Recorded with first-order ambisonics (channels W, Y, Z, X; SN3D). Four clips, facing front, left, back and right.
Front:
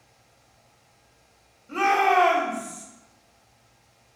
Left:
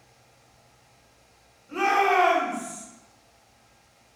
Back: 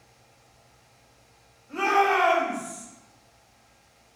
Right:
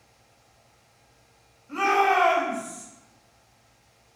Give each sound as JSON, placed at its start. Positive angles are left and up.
{"t": 1.7, "sound": "a shout", "azimuth_deg": 15, "distance_m": 1.5}